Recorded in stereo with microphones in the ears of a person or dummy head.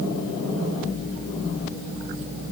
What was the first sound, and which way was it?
Only background noise.